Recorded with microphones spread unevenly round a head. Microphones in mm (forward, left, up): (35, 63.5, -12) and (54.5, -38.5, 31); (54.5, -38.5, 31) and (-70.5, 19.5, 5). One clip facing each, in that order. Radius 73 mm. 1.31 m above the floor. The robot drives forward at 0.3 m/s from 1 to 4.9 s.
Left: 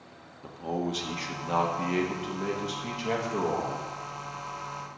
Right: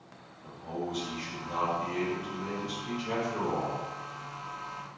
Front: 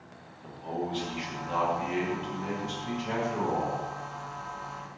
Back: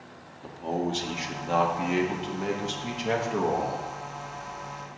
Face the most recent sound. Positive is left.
turn(degrees=150)